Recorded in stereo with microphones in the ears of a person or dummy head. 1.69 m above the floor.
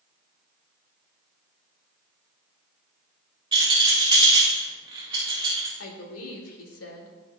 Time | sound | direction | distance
3.5 | a rattle | 25° right (ahead or behind) | 1.6 m
5.8 | a woman speaking | 85° left | 1.8 m